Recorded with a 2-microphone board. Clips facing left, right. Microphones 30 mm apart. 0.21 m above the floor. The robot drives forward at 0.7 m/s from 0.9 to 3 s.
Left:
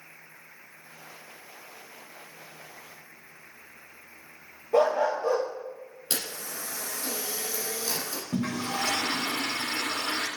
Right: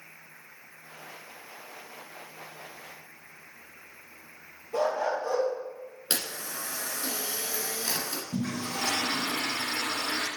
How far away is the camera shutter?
About 2.5 m.